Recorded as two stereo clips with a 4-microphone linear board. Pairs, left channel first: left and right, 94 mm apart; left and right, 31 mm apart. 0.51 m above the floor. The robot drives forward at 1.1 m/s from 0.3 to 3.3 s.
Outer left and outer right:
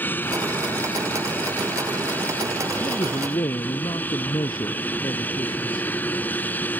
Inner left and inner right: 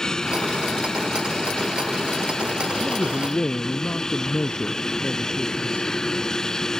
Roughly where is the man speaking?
Left.